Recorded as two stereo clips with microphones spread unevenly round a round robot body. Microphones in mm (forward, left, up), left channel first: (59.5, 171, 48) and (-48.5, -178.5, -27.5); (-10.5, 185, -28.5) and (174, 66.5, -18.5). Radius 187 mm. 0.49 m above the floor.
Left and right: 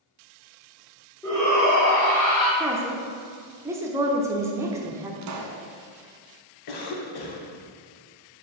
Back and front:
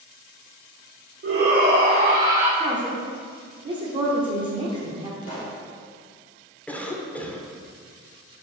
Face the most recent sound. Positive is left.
turn(degrees=70)